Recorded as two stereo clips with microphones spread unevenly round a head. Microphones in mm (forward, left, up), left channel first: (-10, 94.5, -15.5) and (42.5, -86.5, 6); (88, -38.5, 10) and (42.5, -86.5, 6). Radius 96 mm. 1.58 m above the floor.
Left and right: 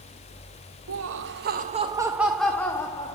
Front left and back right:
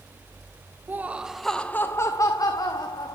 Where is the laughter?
70° right, 1.0 m; by 3.1 s 35° left, 1.5 m.